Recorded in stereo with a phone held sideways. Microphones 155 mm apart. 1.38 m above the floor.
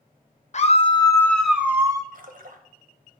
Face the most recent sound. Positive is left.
turn(degrees=-60)  # may be behind; listen again after turning